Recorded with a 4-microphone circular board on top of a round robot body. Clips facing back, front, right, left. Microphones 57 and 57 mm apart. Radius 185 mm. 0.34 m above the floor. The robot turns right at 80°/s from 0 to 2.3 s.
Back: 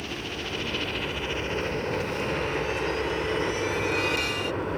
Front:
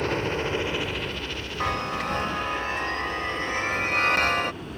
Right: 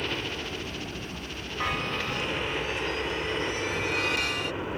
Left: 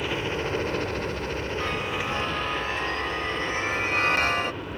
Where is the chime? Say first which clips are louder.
Front 1 dB, right 3 dB; 15° right; by 4.5 s 40° left.